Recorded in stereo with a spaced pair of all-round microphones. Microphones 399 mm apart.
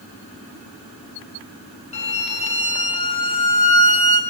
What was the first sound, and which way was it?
A violin, 70° left (ahead or behind).